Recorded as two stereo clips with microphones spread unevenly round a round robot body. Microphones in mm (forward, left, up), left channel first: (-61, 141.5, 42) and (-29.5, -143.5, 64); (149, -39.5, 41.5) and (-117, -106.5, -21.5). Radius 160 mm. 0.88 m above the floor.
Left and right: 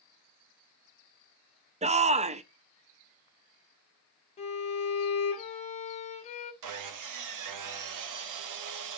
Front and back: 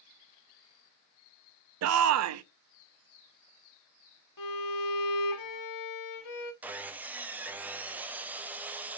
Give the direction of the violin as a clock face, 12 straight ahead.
11 o'clock.